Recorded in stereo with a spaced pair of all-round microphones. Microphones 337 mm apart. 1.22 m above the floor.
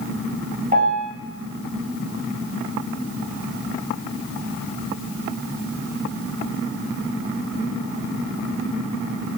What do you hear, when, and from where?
0.7 s a piano: 25° right (ahead or behind), 4.5 m